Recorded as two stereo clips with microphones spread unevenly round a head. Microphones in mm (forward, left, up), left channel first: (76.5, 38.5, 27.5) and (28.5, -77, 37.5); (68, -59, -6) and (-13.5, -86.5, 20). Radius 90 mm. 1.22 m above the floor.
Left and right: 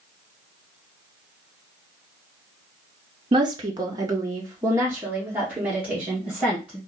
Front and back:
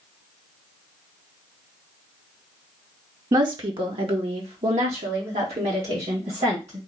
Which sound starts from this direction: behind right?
A woman speaking, at 3.3 s.